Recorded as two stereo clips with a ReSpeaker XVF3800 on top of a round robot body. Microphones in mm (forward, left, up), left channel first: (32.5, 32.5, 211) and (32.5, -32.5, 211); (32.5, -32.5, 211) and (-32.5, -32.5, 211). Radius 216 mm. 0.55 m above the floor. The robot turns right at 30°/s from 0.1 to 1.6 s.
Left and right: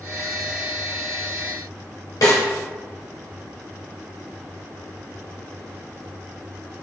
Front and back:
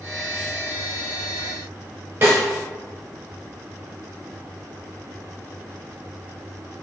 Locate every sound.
2.2 s a snare drum: 115° left, 0.7 m